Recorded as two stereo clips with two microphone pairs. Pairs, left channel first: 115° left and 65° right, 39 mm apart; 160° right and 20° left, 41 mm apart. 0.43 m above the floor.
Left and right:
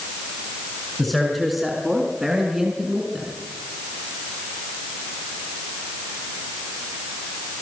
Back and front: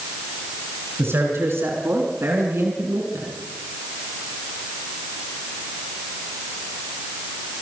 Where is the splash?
I don't hear a splash.